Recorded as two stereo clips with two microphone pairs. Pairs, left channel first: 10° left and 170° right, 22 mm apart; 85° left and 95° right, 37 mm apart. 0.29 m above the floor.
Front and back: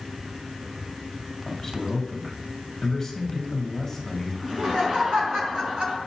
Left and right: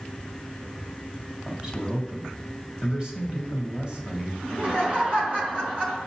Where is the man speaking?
45° right, 1.5 m.